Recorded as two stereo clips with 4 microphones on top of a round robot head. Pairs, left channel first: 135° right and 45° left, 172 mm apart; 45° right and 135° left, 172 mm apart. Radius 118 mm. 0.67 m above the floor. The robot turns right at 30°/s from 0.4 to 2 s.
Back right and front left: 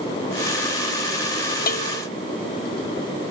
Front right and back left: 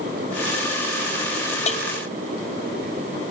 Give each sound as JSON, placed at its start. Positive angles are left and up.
{"t": 1.7, "sound": "a bell", "azimuth_deg": -100}